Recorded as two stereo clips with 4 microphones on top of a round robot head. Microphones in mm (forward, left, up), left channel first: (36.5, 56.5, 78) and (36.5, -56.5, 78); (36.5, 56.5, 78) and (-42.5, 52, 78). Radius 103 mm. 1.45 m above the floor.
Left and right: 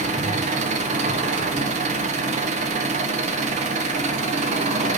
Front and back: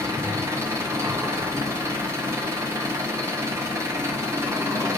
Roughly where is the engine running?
Behind right.